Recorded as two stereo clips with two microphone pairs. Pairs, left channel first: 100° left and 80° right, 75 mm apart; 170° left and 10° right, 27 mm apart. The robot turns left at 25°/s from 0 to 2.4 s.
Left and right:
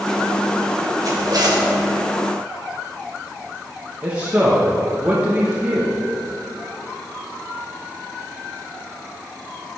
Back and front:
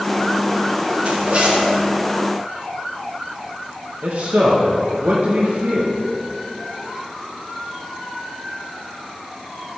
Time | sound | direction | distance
1.0 | a zipper | 45° right | 1.6 m
4.0 | a man speaking | 15° right | 1.1 m